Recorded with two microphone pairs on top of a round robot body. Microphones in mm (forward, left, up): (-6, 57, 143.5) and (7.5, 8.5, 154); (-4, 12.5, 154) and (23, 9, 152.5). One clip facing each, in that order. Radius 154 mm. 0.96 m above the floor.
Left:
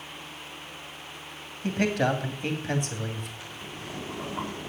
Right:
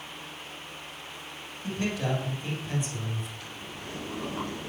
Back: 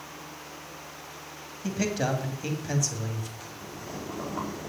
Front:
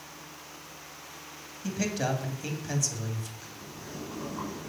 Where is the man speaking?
90° left, 2.5 m.